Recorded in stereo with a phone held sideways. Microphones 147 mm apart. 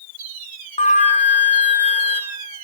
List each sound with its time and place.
0.8 s a flute: 50° left (ahead or behind), 1.8 m